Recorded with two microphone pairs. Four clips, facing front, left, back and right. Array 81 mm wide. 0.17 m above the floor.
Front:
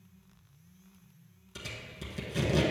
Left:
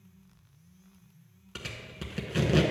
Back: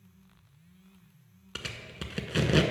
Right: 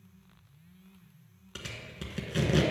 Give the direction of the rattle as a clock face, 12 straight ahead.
No rattle in this recording.